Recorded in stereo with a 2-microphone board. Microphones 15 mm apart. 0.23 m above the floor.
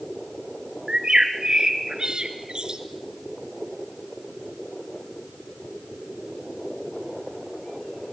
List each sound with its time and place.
0.9 s a bird: 60° right (ahead or behind), 2 m